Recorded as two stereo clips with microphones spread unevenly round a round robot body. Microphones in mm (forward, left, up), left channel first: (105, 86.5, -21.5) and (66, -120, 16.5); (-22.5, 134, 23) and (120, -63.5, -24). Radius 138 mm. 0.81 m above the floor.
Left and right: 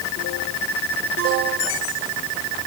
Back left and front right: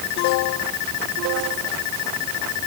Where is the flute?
I don't hear a flute.